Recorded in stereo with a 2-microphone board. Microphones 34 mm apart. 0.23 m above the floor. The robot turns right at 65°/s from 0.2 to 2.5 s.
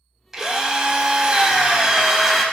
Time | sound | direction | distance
0.3 | a drill | 15° right (ahead or behind) | 0.6 m